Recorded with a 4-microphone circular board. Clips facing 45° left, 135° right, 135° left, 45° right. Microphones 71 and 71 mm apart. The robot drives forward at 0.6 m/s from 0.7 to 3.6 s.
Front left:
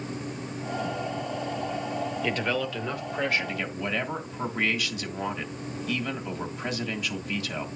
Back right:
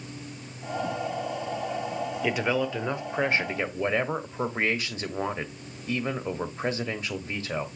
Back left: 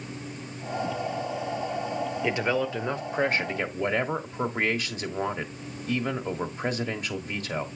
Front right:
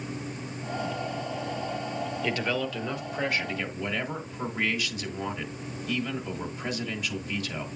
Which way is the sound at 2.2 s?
160° left.